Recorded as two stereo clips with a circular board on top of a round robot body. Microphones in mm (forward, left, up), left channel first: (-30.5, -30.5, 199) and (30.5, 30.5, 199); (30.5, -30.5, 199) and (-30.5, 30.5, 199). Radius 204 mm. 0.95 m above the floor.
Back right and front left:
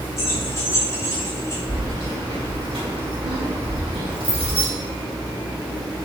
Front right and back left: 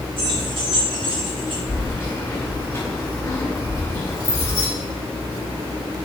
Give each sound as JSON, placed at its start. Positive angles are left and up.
{"t": 0.2, "sound": "keys jangling", "azimuth_deg": 165, "distance_m": 5.0}
{"t": 1.7, "sound": "keys jangling", "azimuth_deg": 15, "distance_m": 4.0}